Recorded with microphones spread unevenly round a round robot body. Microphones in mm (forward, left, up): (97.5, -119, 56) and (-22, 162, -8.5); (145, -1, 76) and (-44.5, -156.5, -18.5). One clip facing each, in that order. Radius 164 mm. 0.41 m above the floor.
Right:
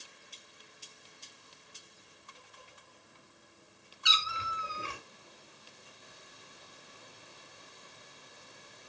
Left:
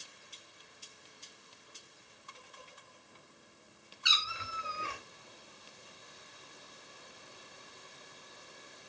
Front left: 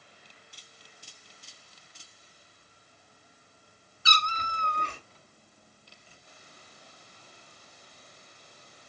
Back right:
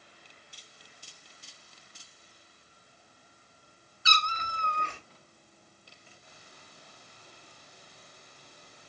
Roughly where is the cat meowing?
Ahead.